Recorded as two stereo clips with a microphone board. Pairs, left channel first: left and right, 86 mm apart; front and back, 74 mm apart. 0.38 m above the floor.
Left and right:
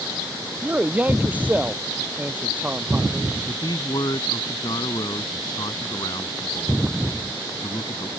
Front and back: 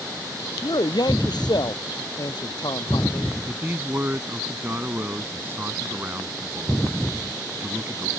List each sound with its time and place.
0.6 s a man speaking: 15° right
3.5 s a man speaking: 120° left